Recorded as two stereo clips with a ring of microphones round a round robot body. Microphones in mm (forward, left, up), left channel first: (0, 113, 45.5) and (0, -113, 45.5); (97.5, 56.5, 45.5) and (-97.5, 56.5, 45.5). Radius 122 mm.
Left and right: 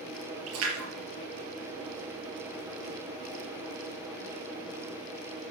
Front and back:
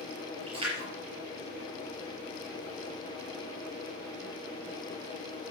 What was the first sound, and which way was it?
A splash, 110° right.